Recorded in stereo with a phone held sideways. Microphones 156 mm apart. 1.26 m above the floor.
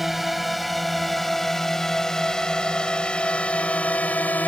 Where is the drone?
Centre (ahead or behind); by 4.5 s 10° left (ahead or behind).